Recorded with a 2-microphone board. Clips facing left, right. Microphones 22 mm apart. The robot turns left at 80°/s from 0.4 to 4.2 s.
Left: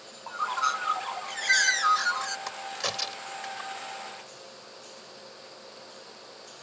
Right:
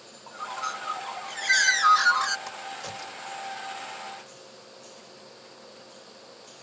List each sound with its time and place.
0.3 s a bird: 90° left; by 2.4 s 65° right
2.5 s a crack: 20° left (ahead or behind); by 3.7 s 60° left (ahead or behind)